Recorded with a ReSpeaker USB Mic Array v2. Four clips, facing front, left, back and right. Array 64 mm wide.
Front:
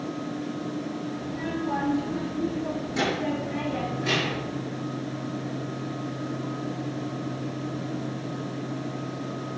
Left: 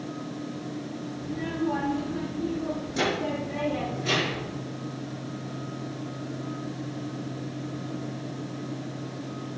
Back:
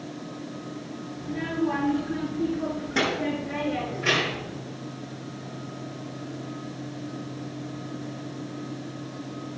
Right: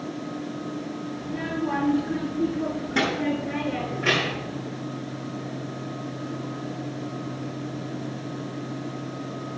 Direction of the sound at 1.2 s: 135° right.